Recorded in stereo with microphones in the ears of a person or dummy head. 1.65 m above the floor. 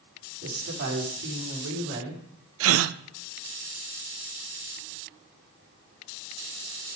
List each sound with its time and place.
0.4 s a woman speaking: 55° right (ahead or behind), 4.5 m; by 2.2 s 65° right (ahead or behind), 4 m
2.6 s a gasp: 75° right (ahead or behind), 0.5 m